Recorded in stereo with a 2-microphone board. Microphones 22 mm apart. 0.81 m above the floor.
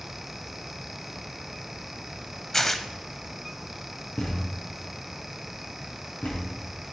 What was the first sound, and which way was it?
Tearing paper, 15° left (ahead or behind).